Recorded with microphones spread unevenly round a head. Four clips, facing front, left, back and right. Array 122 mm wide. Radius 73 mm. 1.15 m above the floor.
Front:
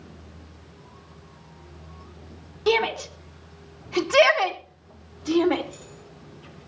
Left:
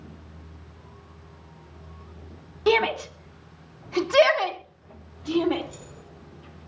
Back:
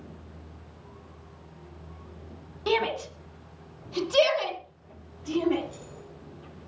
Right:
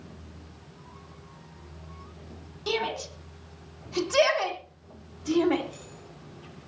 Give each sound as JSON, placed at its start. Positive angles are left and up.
{"t": 2.7, "sound": "a shout", "azimuth_deg": 55, "distance_m": 2.5}
{"t": 5.6, "sound": "keys jangling", "azimuth_deg": 155, "distance_m": 4.5}